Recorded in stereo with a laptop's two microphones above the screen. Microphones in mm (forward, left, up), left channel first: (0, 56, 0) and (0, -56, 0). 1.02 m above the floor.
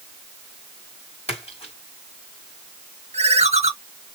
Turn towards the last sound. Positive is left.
turn(degrees=-75)  # may be behind; listen again after turning